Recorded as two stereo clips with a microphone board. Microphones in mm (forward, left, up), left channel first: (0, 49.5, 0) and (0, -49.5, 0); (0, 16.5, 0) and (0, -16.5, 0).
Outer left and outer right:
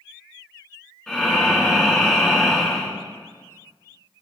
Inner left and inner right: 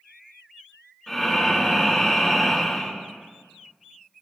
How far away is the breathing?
About 2.5 m.